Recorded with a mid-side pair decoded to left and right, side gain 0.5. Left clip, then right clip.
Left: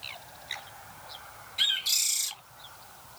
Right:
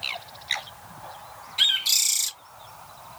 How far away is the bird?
About 1.1 m.